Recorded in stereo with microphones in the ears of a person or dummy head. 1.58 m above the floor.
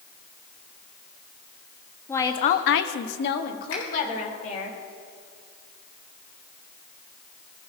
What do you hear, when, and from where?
2.1 s a woman speaking: 10° left (ahead or behind), 1.0 m; by 4.7 s 45° left (ahead or behind), 2.5 m
3.7 s a finger snap: 80° left, 4 m